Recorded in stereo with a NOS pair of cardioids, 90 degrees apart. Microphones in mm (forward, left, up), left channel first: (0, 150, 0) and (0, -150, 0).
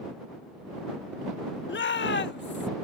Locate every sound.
1.7 s a shout: 40° left; by 2.7 s 35° left